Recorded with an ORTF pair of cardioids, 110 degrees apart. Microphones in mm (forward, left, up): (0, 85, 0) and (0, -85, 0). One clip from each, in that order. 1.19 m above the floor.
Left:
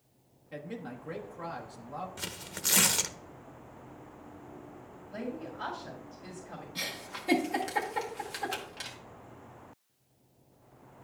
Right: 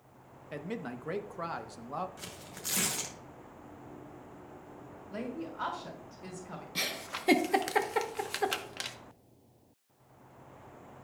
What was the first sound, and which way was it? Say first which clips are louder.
A man speaking: right 2 dB; 35° right.